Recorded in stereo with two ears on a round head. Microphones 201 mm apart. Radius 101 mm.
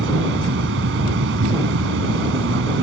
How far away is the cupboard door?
No cupboard door in this recording.